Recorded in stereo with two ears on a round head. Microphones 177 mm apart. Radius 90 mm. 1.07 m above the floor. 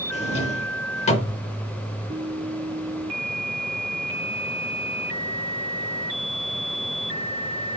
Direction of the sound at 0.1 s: 35° left (ahead or behind).